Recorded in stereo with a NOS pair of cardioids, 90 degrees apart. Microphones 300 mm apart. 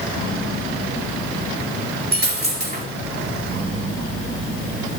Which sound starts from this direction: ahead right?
A dropped coin, at 2.1 s.